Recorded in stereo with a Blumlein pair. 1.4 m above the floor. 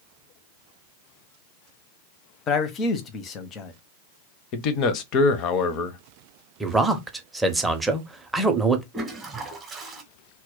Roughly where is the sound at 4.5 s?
Ahead left.